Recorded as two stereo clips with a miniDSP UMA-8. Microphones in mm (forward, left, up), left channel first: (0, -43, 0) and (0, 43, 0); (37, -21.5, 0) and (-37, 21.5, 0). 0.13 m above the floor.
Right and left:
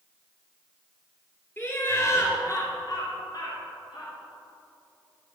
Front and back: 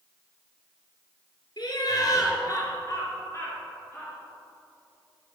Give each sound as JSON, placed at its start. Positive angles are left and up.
{"t": 1.6, "sound": "laughter", "azimuth_deg": -30, "distance_m": 2.0}